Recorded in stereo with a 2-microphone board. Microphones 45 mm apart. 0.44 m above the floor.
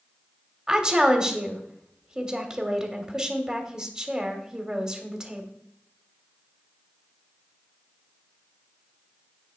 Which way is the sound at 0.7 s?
20° right (ahead or behind).